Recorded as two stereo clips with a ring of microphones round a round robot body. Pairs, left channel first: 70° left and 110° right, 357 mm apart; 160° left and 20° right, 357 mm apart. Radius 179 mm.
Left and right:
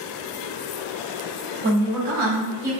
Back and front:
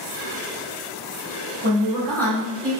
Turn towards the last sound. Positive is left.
turn(degrees=-135)